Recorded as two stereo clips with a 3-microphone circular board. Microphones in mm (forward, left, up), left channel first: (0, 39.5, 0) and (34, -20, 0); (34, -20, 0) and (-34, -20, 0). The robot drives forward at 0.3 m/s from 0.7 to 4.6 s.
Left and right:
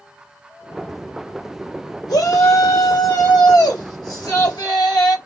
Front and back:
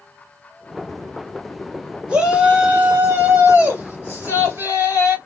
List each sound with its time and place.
2.1 s a shout: 110° left, 2.5 m; by 5.2 s 125° left, 2.5 m